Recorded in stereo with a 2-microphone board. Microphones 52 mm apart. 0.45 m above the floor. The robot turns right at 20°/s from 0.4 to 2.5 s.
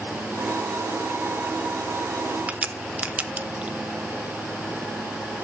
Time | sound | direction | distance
2.5 | a crack | 25° right (ahead or behind) | 0.6 m